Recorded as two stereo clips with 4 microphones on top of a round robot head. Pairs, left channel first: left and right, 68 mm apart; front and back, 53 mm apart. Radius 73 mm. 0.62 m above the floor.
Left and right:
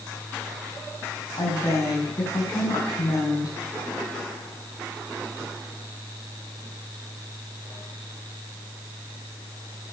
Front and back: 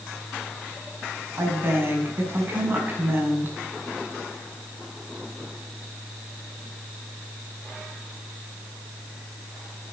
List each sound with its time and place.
1.4 s a woman speaking: 130° left, 5.5 m